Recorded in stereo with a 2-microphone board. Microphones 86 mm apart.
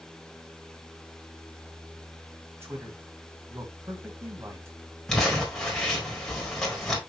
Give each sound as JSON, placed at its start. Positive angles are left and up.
{"t": 2.6, "sound": "a man speaking", "side_deg": -30, "distance_m": 2.0}
{"t": 5.1, "sound": "crumpling", "side_deg": 5, "distance_m": 3.0}